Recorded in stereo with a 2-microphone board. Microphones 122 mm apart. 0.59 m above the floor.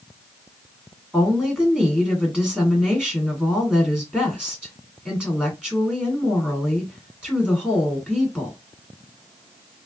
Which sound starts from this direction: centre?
A woman speaking, at 1.1 s.